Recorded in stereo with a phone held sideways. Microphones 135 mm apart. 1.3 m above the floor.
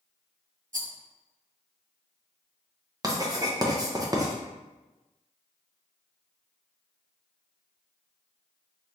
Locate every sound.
0.7 s a rattle: 75° right (ahead or behind), 0.6 m
3.0 s writing: 25° right (ahead or behind), 0.6 m